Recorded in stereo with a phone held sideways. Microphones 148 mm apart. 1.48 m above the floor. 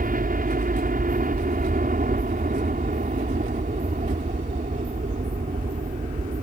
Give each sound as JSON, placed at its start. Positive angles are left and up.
{"t": 0.0, "sound": "a helicopter", "side_deg": -70}